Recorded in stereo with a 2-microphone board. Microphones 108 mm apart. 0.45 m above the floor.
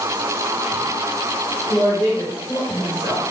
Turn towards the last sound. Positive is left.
turn(degrees=45)  # may be behind; listen again after turning